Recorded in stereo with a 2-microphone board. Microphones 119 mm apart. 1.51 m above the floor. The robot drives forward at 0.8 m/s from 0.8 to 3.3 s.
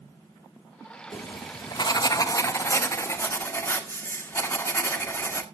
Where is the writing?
40° left (ahead or behind), 0.9 m; by 5.4 s 20° left (ahead or behind), 1.7 m.